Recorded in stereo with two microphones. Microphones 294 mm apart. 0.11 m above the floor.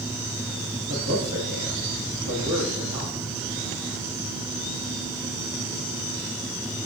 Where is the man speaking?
70° right (ahead or behind), 5.5 m.